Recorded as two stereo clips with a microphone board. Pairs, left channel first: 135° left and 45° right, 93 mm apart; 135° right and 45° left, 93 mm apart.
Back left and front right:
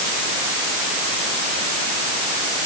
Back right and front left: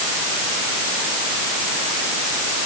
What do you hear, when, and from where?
Only background noise.